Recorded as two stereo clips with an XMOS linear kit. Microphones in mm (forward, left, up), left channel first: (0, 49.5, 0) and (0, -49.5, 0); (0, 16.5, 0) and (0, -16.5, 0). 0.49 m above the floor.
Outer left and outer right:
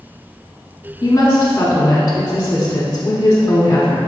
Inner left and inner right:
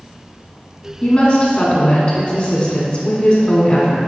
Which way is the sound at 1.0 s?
25° left (ahead or behind).